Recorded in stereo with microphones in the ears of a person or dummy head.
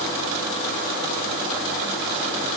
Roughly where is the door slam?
I don't hear a door slam.